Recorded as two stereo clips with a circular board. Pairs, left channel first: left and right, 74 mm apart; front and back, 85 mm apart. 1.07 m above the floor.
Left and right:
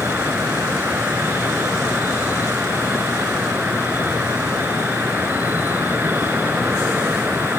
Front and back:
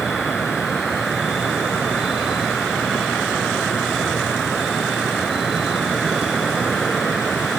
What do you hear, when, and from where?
0.0 s an insect: 95° right